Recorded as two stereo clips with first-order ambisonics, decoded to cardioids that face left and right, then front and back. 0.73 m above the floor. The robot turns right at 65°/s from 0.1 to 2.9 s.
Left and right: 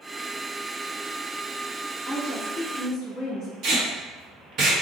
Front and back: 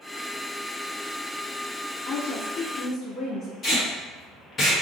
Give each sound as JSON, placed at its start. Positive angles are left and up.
{"t": 2.0, "sound": "a woman speaking", "azimuth_deg": 0, "distance_m": 1.3}
{"t": 3.6, "sound": "tape being pulled", "azimuth_deg": -60, "distance_m": 1.2}